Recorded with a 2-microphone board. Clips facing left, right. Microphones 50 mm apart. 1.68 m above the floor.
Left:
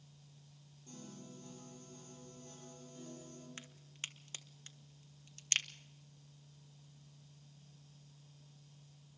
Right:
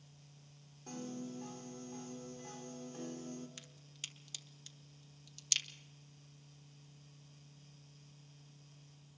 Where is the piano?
80° right, 4.5 m.